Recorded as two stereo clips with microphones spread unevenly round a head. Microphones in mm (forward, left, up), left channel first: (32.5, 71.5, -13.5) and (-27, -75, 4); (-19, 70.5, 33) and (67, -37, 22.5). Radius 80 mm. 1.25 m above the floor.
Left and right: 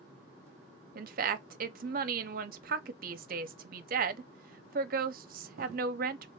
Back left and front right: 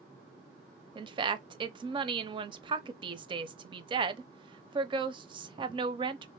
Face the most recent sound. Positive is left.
turn(degrees=-90)